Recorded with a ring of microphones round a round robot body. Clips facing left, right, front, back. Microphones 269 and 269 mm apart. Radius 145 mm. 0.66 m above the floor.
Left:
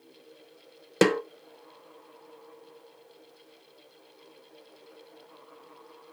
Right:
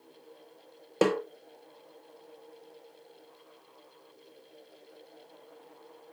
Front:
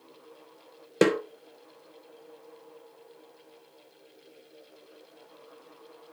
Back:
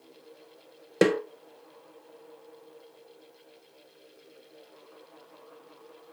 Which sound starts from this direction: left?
A snare drum, at 1.0 s.